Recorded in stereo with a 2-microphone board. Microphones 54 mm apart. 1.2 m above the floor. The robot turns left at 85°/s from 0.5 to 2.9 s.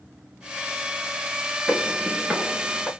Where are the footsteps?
Centre (ahead or behind), 1.2 m; by 2.9 s 5° left (ahead or behind), 1.3 m.